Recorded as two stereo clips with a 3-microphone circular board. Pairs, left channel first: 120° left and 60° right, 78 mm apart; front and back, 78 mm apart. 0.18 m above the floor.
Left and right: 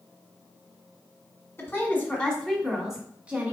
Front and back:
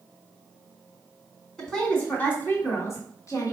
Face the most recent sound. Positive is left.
turn(degrees=0)